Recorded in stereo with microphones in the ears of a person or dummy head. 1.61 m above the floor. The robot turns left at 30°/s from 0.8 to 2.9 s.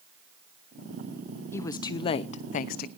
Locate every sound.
1.5 s a woman speaking: 160° left, 0.6 m; by 2.9 s 120° left, 0.6 m